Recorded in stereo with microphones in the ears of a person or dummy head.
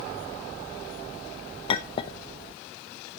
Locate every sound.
1.7 s a clink: 30° left (ahead or behind), 0.7 m